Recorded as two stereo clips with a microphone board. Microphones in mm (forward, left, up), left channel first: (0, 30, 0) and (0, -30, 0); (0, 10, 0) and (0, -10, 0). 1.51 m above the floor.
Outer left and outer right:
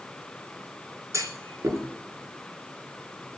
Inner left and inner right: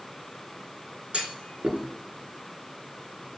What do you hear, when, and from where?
1.1 s a clunk: 65° right (ahead or behind), 3.5 m